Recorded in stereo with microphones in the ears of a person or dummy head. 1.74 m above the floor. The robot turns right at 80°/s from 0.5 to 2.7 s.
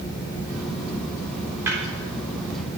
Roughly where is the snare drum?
Centre.